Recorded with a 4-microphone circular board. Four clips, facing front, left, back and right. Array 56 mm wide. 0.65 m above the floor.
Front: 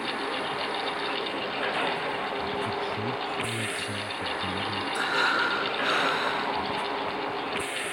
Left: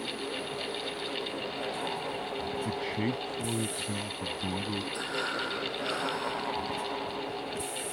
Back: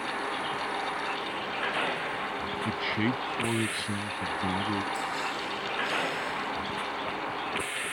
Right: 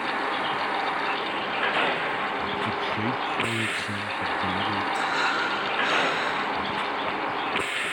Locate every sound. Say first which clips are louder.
0.0 s a vehicle: right 10 dB, front 2 dB; 90° right
2.6 s a man speaking: right 5 dB, back 1 dB; 170° right
4.9 s breathing: right 8 dB, front 7 dB; 25° right